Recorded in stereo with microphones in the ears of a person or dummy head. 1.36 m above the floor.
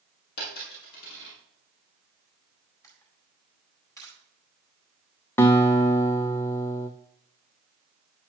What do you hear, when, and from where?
0.4 s a dropped coin: 65° left (ahead or behind), 5.5 m
2.8 s a camera shutter: 15° left (ahead or behind), 4 m
5.4 s a guitar: 10° left (ahead or behind), 0.7 m